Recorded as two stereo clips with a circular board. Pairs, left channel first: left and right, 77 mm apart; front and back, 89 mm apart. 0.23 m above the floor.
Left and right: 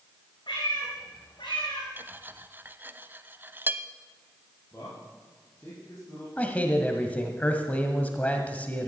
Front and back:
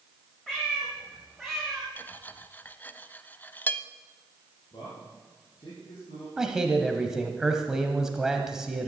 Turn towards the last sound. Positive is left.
turn(degrees=110)